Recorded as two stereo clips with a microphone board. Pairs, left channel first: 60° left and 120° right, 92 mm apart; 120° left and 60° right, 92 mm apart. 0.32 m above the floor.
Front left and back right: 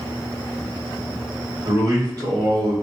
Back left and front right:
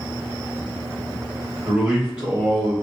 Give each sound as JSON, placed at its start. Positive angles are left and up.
{"t": 1.6, "sound": "a man speaking", "azimuth_deg": -135, "distance_m": 1.5}